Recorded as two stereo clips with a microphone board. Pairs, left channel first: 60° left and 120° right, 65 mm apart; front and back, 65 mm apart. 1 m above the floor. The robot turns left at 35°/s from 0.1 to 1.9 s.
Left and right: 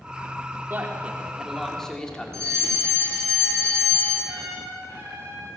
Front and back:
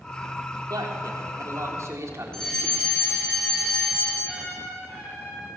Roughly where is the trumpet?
Right.